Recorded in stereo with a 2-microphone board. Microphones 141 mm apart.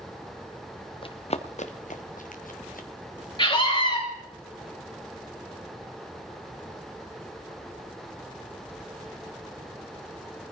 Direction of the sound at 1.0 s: 40° left (ahead or behind).